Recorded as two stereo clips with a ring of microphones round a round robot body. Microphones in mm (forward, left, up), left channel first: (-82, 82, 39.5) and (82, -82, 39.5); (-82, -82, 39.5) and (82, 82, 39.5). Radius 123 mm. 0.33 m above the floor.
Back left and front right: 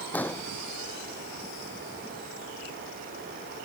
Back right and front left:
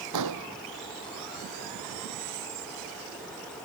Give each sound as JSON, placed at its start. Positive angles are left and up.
{"t": 0.1, "sound": "an explosion", "azimuth_deg": 50}